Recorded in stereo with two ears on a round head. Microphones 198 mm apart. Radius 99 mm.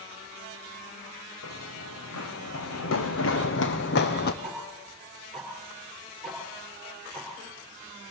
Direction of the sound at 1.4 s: 80° left.